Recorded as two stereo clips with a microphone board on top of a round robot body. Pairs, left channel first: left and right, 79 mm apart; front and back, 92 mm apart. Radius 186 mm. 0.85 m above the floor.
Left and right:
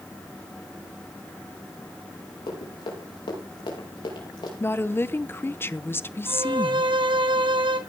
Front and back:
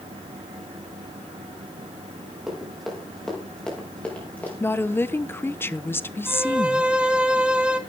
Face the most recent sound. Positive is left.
turn(degrees=-100)